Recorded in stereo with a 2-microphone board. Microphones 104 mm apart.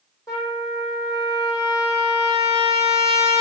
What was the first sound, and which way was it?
A trumpet, 30° left (ahead or behind).